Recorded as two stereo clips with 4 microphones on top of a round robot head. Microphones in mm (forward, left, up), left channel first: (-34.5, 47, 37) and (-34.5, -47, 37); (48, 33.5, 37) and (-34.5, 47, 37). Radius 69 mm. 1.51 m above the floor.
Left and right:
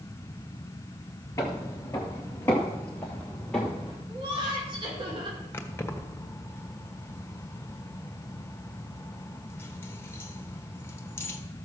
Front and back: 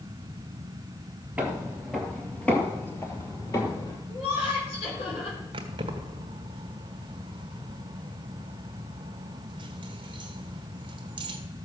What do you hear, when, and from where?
1.4 s footsteps: 105° left, 1.6 m; by 4.0 s 5° left, 1.9 m
4.1 s laughter: 40° right, 6 m
5.5 s keys jangling: 155° left, 1.2 m